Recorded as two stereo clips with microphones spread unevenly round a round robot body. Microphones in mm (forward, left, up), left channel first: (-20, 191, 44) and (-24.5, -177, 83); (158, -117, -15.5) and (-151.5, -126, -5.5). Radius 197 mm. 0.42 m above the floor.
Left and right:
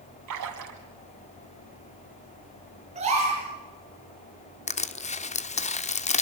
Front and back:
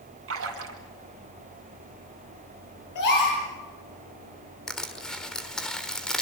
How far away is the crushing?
About 1.2 m.